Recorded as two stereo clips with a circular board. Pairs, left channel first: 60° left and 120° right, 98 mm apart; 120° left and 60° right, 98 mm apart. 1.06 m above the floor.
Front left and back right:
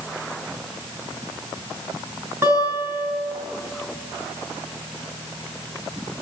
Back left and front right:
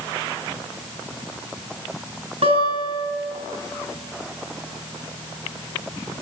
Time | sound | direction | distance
2.4 | a guitar | 55° right | 8 m